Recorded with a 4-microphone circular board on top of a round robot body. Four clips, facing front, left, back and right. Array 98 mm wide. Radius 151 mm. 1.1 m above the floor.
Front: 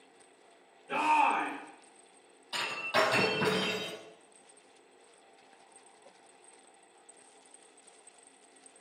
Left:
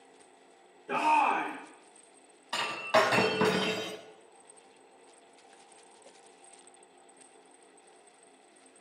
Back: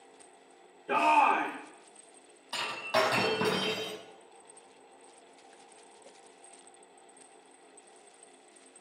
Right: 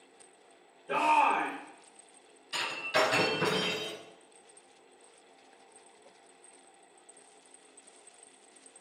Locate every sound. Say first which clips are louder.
0.9 s a shout: even, back 3 dB; 160° left, 4 m
2.5 s breaking glass: left 4 dB, back 1 dB; 100° left, 3 m